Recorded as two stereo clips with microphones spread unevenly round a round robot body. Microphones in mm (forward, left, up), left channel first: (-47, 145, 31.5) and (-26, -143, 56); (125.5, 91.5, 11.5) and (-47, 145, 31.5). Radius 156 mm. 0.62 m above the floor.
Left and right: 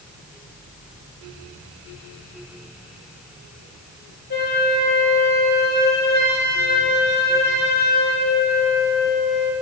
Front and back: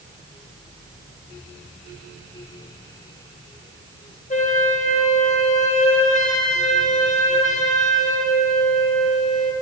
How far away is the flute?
About 1.9 m.